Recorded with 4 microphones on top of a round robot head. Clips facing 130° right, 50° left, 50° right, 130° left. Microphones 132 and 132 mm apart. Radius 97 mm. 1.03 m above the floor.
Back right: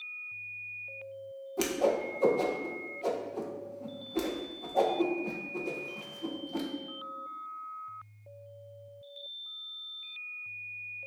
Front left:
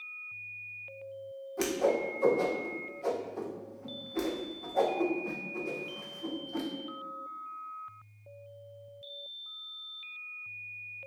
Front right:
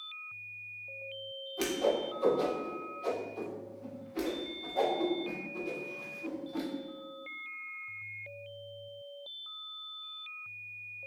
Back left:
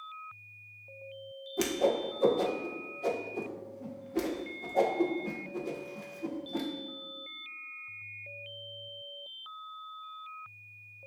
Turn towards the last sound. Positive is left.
turn(degrees=165)